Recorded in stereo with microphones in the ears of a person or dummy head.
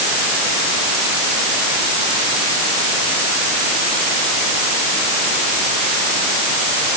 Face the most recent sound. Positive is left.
No sound to turn to.